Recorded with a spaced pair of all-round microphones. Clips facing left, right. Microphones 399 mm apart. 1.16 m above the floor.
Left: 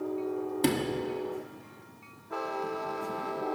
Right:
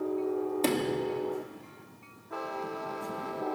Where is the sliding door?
25° left (ahead or behind), 1.0 m.